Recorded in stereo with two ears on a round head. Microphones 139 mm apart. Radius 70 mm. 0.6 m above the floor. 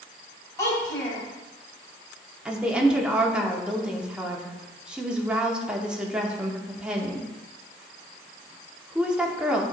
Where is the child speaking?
20° left (ahead or behind), 2.5 m.